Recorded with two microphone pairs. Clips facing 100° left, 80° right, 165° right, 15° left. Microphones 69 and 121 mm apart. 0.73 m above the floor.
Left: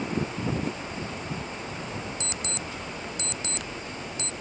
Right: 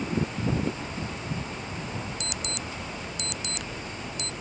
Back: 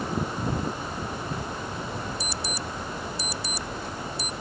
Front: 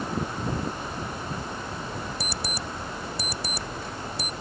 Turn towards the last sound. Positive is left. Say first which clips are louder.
# even, even
turn(degrees=40)